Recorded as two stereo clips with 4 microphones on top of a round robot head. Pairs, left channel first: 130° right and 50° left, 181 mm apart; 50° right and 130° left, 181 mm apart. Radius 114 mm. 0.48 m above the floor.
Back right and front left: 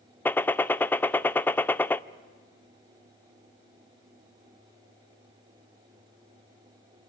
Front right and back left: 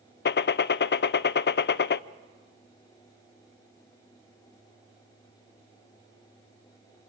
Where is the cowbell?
No cowbell in this recording.